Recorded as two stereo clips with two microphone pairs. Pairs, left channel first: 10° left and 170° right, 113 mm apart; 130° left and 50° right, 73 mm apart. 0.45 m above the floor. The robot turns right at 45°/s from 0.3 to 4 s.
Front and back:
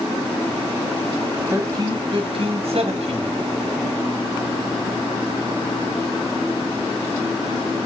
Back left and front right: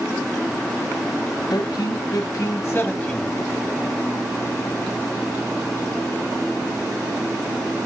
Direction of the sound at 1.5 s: 125° left.